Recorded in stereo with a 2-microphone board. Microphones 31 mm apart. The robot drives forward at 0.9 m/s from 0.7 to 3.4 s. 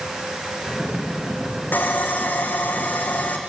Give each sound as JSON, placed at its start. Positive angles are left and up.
{"t": 1.7, "sound": "sawing", "side_deg": 80, "distance_m": 3.0}